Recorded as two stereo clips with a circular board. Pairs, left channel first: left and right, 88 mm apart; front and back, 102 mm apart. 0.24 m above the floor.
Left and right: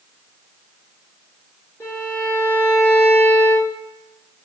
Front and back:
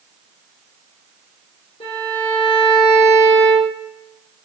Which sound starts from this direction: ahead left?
A violin, at 1.8 s.